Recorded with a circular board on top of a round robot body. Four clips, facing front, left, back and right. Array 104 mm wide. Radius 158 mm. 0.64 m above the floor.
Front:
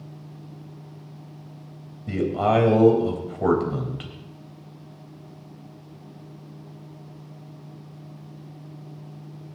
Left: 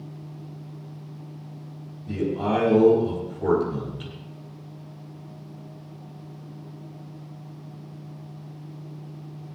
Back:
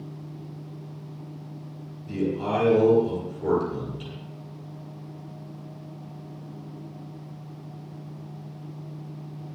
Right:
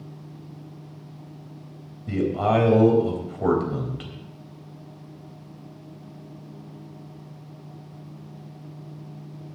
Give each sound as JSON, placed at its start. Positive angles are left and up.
{"t": 2.1, "sound": "a man speaking", "azimuth_deg": -30, "distance_m": 4.0}